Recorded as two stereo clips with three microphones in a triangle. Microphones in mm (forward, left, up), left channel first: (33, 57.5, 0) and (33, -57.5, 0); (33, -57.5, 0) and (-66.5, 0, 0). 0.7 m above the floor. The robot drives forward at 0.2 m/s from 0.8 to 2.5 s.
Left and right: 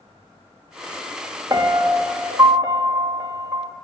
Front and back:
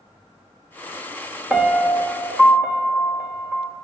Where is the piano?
130° right, 0.9 m; by 3.7 s 145° right, 1.0 m.